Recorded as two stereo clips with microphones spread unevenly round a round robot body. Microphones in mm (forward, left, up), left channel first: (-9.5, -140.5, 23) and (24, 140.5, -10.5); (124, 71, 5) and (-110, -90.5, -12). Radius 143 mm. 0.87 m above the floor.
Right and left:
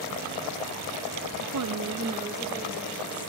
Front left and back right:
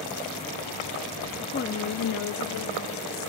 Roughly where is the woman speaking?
Left.